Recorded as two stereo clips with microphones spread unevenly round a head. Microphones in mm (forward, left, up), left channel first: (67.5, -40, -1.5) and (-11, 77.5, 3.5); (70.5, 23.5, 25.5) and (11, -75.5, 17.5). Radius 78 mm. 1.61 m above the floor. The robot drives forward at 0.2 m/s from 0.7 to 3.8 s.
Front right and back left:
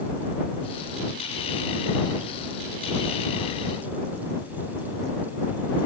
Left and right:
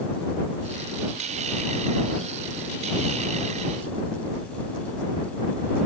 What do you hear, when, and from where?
Only background noise.